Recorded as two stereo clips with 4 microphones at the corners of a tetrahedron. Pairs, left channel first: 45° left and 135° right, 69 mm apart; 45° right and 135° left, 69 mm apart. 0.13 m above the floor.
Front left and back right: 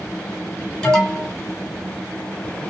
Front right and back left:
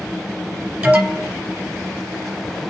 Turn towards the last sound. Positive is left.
turn(degrees=110)